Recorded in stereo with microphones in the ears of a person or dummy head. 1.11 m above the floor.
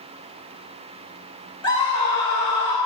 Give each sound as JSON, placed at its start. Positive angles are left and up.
{"t": 1.6, "sound": "a scream", "side_deg": 20, "distance_m": 4.5}